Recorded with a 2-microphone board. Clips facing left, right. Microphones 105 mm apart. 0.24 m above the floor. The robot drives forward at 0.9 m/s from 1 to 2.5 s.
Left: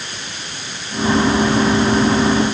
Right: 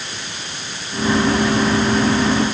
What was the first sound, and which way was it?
Only background noise.